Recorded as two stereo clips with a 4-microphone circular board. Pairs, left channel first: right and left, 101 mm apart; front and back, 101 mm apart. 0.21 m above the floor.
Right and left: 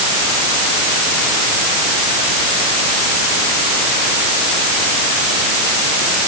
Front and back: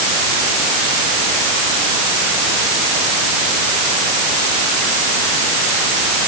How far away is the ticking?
I don't hear ticking.